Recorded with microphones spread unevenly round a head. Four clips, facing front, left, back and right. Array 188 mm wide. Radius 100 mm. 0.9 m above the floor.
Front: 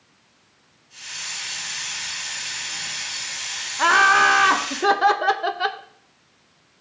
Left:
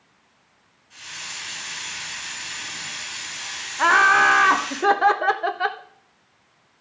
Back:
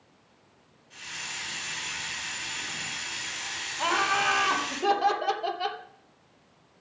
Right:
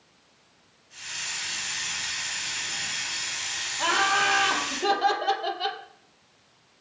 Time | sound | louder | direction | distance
0.9 | a hiss | left 1 dB, front 2 dB | 155° left | 5.5 m
3.8 | laughter | left 8 dB, front 10 dB | 35° left | 0.8 m